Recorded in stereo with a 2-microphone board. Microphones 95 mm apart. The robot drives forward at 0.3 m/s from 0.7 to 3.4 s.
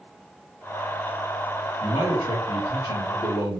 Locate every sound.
1.8 s a man speaking: 50° left (ahead or behind), 1.2 m; by 3.6 s 70° left (ahead or behind), 1.0 m